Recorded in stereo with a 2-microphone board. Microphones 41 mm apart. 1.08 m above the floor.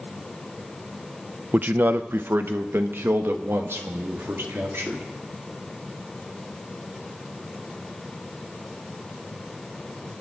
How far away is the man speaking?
About 0.6 m.